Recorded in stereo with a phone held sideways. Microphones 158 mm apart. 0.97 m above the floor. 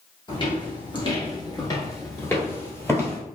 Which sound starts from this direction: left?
Footsteps, at 0.3 s.